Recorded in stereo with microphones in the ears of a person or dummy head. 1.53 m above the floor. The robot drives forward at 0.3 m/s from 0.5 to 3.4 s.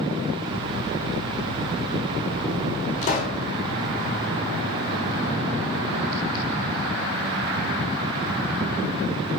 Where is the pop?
35° left (ahead or behind), 4.5 m.